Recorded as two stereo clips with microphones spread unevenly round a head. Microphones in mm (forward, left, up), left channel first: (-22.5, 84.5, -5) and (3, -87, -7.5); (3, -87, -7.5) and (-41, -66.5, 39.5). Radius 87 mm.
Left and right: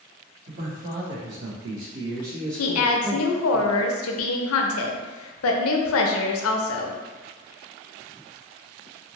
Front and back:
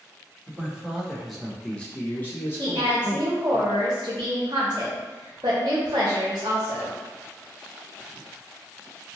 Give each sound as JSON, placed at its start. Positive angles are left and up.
{"t": 0.5, "sound": "a man speaking", "azimuth_deg": -130, "distance_m": 1.2}
{"t": 2.6, "sound": "a woman speaking", "azimuth_deg": 95, "distance_m": 0.5}